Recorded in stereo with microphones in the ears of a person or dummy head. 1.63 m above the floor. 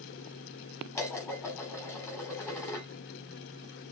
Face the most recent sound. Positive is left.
turn(degrees=20)  # may be behind; listen again after turning